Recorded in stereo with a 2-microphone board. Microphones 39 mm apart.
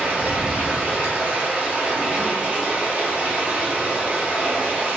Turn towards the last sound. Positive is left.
turn(degrees=-35)  # may be behind; listen again after turning